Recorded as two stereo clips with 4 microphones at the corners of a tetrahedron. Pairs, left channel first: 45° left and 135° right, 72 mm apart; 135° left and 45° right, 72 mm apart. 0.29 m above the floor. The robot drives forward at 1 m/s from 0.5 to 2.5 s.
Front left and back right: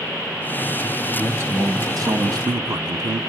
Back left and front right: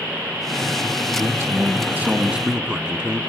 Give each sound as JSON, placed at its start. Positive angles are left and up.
{"t": 1.2, "sound": "a man speaking", "azimuth_deg": -80, "distance_m": 1.9}